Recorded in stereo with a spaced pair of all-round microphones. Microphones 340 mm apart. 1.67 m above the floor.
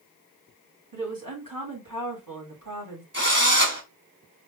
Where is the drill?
30° right (ahead or behind), 1.8 m.